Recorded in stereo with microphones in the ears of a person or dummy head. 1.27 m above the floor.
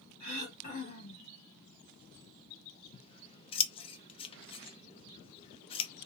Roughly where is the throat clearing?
Left.